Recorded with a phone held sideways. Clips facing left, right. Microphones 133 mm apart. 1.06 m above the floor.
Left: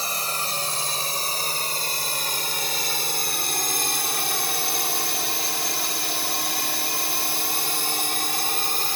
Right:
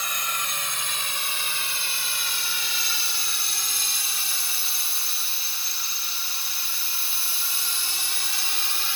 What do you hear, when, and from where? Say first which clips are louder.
0.0 s a drone: left 3 dB; 35° left (ahead or behind); by 9.0 s 45° left (ahead or behind)